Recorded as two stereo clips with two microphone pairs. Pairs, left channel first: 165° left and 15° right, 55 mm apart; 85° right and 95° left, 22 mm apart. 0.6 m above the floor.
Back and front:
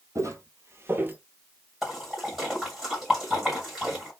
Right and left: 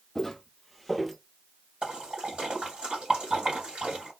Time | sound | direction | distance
0.1 | footsteps | 5° right | 1.1 m
1.8 | a splash | 70° left | 2.5 m